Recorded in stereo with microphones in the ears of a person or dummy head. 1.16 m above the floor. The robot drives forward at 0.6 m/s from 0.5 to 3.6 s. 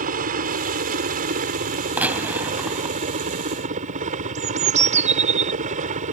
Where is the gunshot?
10° right (ahead or behind).